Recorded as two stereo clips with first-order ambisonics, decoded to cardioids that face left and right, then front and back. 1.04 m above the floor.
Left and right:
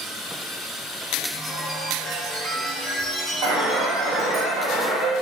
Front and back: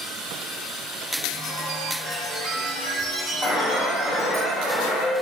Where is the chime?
175° right, 0.7 m.